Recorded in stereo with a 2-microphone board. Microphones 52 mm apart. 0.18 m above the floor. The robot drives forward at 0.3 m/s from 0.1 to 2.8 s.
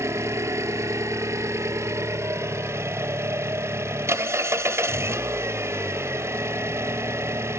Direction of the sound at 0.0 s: 70° right (ahead or behind).